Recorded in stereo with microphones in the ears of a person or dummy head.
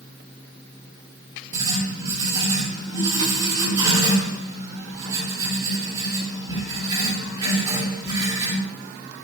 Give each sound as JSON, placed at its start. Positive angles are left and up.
{"t": 1.5, "sound": "writing", "side_deg": -20, "distance_m": 3.0}